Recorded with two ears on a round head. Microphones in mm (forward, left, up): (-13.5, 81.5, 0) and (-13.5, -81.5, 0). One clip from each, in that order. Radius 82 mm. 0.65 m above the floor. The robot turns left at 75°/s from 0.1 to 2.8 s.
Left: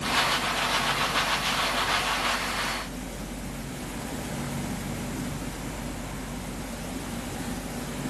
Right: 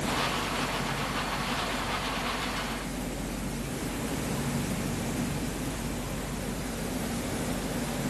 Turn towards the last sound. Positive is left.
No sound to turn to.